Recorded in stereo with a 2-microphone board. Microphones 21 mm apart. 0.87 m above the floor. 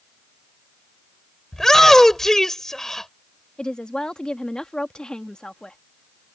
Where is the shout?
20° left (ahead or behind).